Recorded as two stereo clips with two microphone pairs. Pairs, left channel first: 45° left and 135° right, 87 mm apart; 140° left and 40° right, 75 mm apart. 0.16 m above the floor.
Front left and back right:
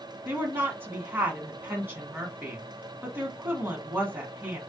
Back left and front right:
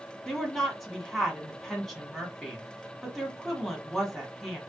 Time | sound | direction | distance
0.2 | a woman speaking | 135° right | 1.1 m